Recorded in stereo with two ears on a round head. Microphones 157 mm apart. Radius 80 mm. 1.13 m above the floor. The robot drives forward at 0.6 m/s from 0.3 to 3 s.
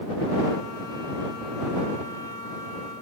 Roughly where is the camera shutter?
I don't hear a camera shutter.